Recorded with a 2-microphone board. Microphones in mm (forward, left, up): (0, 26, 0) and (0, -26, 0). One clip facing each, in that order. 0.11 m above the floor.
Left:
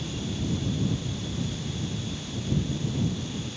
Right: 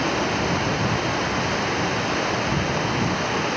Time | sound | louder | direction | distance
0.0 | running water | right 11 dB | 70° right (ahead or behind) | ?